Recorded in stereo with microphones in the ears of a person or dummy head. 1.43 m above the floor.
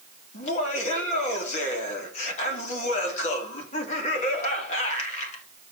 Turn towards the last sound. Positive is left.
turn(degrees=40)  # may be behind; listen again after turning